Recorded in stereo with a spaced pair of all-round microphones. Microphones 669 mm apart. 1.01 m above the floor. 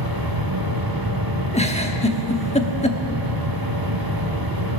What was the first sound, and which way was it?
A machine running, 30° right (ahead or behind).